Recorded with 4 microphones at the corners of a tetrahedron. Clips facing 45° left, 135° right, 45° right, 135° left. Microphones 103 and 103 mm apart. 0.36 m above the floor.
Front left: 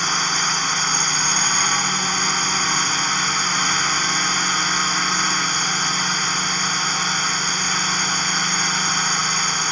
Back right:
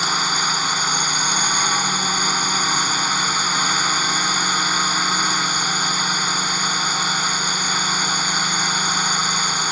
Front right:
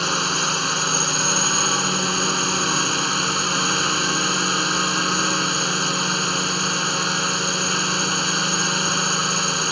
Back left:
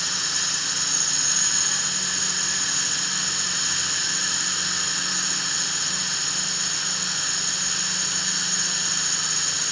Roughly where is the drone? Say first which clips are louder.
Back right 1 dB, front right 11 dB; ahead right.